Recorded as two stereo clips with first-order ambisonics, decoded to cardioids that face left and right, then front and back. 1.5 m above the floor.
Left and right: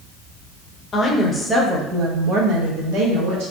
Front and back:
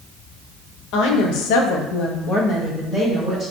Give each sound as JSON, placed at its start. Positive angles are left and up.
{"t": 0.9, "sound": "a woman speaking", "azimuth_deg": 20, "distance_m": 0.9}